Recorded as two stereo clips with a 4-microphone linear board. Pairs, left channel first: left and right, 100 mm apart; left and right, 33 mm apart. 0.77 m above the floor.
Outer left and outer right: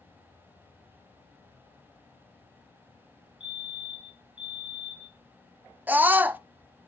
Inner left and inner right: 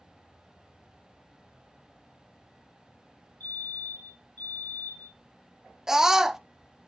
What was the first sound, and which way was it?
A fire alarm, 55° left (ahead or behind).